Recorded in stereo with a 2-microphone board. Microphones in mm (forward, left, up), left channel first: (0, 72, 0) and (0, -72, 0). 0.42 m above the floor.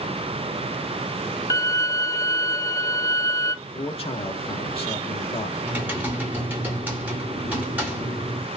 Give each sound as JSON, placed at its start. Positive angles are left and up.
{"t": 1.5, "sound": "a violin", "side_deg": 25, "distance_m": 0.5}
{"t": 3.6, "sound": "a man speaking", "side_deg": 40, "distance_m": 1.0}
{"t": 5.6, "sound": "typing on a keyboard", "side_deg": -10, "distance_m": 1.5}